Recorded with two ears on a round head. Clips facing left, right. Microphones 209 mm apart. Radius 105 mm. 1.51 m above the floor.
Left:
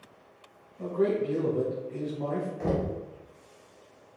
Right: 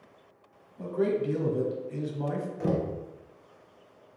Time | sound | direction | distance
0.8 | a man speaking | 60° right (ahead or behind) | 1.1 m
2.6 | knocking | 15° right (ahead or behind) | 0.8 m